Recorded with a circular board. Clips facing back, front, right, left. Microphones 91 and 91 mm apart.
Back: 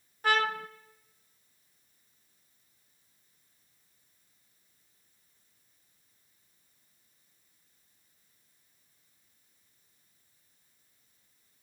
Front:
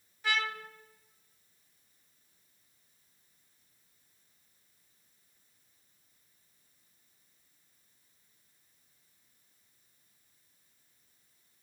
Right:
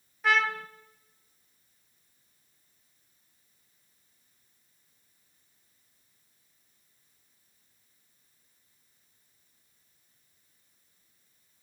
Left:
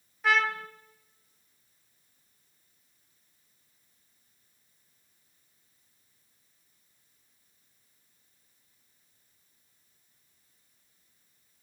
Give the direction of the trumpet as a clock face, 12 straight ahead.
6 o'clock.